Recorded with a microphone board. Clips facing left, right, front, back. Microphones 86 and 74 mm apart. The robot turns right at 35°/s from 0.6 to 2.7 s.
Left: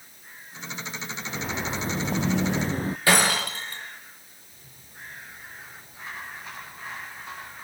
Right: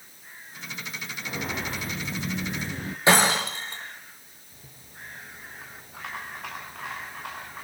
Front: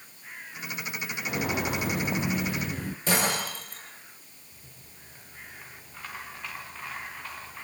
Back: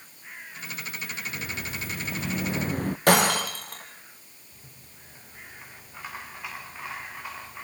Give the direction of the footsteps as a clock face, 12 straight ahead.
12 o'clock.